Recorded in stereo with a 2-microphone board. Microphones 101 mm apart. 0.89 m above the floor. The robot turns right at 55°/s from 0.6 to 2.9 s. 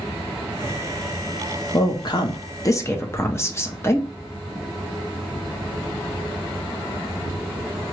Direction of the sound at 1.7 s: 75° left.